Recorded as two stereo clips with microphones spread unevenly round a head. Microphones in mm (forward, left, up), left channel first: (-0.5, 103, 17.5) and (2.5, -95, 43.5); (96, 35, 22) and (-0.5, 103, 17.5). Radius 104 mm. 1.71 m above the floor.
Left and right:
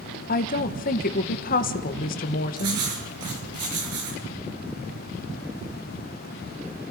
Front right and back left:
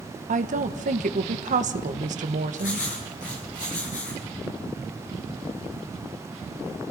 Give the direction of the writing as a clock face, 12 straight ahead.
3 o'clock.